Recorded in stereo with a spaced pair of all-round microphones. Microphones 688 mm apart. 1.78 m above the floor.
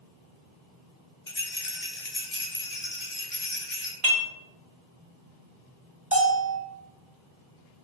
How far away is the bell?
About 1.2 m.